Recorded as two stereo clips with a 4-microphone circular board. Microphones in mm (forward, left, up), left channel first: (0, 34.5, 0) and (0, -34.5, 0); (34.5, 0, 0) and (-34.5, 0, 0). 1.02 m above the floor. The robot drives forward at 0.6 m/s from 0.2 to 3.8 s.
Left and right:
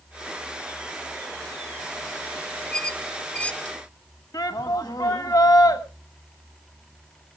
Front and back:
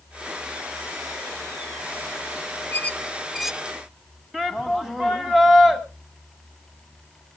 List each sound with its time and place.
2.7 s a squeak: 25° left, 0.7 m; by 3.8 s 135° left, 0.6 m
4.3 s a shout: 95° left, 1.6 m